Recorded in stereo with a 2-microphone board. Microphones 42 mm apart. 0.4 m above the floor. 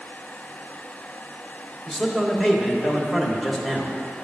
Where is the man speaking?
15° left (ahead or behind), 1.0 m.